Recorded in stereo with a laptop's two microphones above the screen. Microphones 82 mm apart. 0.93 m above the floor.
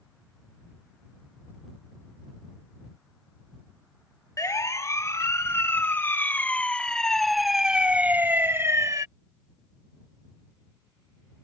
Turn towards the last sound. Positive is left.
turn(degrees=-40)  # may be behind; listen again after turning